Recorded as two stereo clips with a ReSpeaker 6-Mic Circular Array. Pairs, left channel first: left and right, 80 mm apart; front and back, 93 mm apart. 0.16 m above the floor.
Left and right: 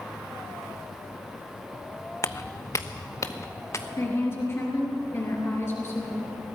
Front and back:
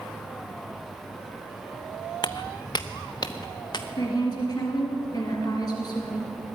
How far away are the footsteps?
About 0.5 m.